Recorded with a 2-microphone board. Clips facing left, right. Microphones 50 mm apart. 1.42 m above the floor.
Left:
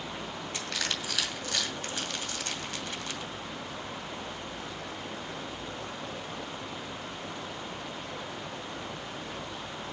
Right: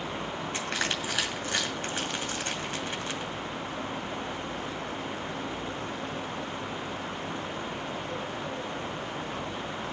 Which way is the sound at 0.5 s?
25° right (ahead or behind).